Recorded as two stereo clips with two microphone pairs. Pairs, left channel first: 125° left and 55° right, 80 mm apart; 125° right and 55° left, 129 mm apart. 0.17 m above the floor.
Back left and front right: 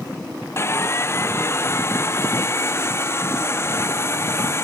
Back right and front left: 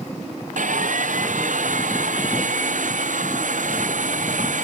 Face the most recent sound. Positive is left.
turn(degrees=70)